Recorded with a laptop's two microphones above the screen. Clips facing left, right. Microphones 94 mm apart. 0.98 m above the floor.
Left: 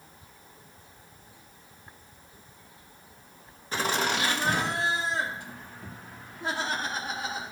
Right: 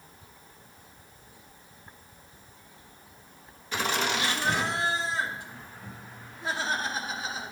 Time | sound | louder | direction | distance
3.7 | laughter | left 1 dB | 35° left (ahead or behind) | 1.3 m